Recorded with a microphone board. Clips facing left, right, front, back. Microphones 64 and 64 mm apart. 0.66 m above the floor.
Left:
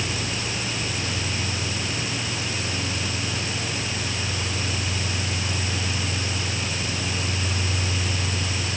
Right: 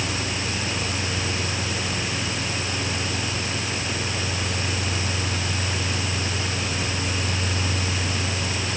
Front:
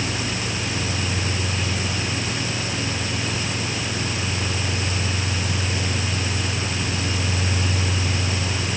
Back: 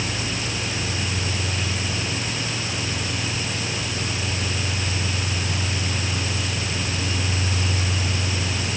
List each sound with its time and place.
Only background noise.